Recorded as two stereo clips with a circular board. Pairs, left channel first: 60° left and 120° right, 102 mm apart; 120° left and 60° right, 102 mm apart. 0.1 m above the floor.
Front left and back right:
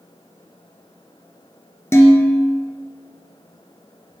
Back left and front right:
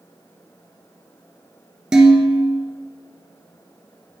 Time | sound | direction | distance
1.9 | dishes clattering | 20° left | 1.0 m